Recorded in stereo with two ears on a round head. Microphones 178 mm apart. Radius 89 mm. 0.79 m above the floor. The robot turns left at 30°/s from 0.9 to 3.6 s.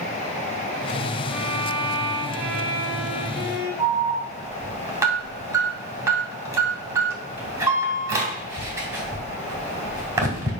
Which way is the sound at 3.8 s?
15° right (ahead or behind).